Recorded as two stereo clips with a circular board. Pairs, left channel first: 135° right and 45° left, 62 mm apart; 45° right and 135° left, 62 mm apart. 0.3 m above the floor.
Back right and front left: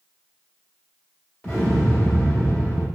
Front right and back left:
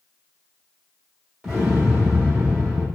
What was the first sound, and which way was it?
An explosion, 145° right.